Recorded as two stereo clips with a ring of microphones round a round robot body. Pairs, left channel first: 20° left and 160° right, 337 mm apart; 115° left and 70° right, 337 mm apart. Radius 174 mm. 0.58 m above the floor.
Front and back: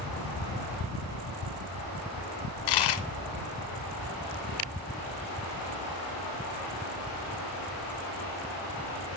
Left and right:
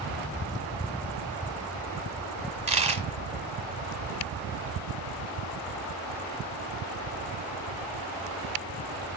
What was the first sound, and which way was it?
A dropped coin, 5° left.